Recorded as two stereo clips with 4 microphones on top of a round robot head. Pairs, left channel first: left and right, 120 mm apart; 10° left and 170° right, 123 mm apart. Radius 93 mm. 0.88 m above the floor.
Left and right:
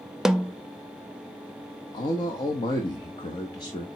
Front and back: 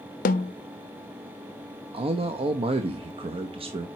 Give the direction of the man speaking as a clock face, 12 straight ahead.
7 o'clock.